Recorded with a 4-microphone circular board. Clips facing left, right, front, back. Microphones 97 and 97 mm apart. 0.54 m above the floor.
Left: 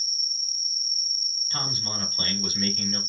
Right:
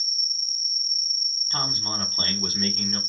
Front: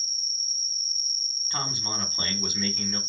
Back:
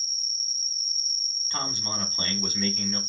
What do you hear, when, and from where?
0.0 s an insect: 25° left, 1.3 m
1.5 s a man speaking: 70° right, 1.5 m